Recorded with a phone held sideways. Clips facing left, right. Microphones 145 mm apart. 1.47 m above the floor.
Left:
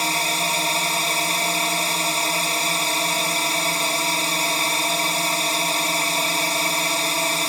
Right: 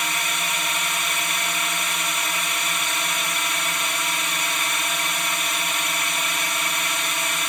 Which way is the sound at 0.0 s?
35° left (ahead or behind).